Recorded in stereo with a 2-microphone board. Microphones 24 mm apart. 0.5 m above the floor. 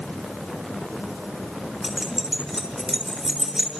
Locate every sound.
1.8 s keys jangling: 20° right (ahead or behind), 6.5 m